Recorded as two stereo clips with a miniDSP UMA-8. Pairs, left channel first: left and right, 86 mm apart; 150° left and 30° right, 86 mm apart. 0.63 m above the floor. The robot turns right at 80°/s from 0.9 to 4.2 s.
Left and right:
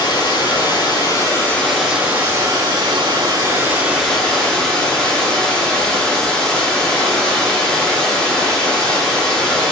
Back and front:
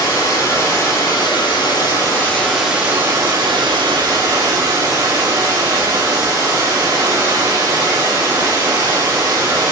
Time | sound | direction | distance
0.0 | running water | 105° left | 0.9 m